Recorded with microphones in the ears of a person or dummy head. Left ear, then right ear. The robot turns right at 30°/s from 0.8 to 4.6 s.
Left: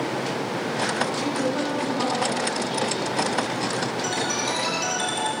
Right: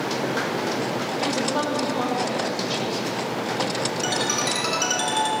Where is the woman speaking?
135° right, 2.5 m; by 3.2 s 75° right, 2.5 m.